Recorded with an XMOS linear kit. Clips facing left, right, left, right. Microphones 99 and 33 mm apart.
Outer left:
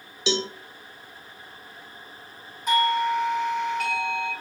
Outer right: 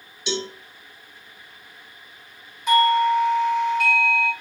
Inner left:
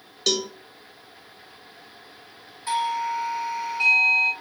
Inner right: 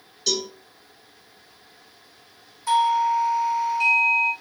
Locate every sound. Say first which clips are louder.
0.3 s a cowbell: outer left 2 dB, inner left 2 dB; 75° left (ahead or behind), 0.9 m
2.7 s a doorbell: outer right 5 dB, inner right 6 dB; 40° left (ahead or behind), 2.5 m